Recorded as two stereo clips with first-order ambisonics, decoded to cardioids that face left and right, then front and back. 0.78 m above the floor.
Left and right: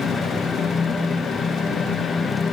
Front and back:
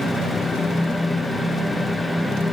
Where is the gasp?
No gasp in this recording.